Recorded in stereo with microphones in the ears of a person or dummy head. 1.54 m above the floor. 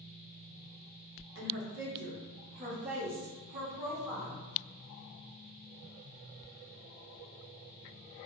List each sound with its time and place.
1.4 s a woman speaking: 60° right (ahead or behind), 0.8 m; by 4.4 s 35° right (ahead or behind), 2.0 m